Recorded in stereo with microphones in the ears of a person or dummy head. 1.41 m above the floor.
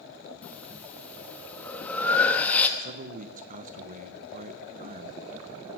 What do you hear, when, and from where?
0.4 s breathing: 5° left (ahead or behind), 1.1 m
2.8 s a man speaking: 45° right (ahead or behind), 0.8 m